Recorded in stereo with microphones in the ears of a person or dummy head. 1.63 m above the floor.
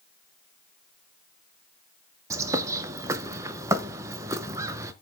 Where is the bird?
15° right (ahead or behind), 0.6 m.